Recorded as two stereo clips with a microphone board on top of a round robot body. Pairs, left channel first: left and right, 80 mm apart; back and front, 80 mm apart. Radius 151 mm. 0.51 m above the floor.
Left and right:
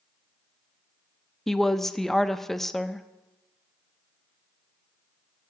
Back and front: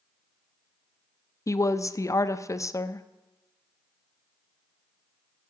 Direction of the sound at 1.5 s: 175° left.